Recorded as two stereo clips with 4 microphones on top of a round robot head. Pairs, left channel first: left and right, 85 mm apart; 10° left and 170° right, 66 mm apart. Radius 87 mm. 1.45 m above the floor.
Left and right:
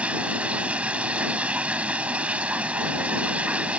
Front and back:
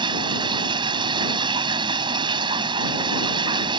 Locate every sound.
0.0 s running water: 170° right